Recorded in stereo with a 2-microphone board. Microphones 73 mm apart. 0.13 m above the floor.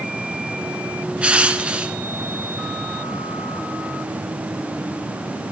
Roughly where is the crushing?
Centre.